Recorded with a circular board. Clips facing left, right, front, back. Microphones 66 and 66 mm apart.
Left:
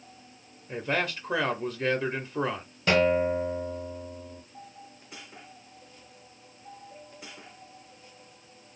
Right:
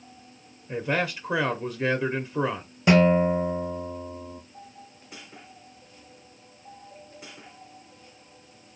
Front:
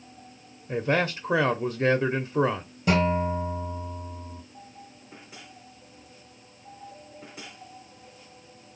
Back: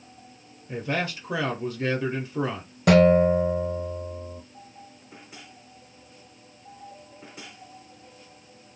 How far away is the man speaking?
About 0.9 m.